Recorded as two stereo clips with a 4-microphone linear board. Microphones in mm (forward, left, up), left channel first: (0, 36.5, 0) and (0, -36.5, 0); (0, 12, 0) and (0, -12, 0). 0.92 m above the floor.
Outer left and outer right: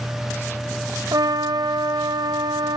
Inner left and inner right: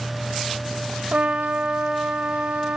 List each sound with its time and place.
1.1 s a trumpet: 65° right (ahead or behind), 1.3 m